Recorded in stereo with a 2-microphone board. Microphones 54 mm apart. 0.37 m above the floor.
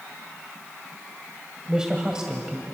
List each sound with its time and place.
1.7 s a man speaking: 15° right (ahead or behind), 1.9 m